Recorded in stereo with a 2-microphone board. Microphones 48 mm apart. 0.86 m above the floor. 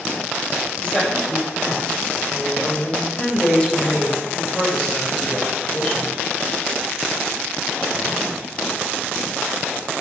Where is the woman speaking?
25° left (ahead or behind), 3.5 m.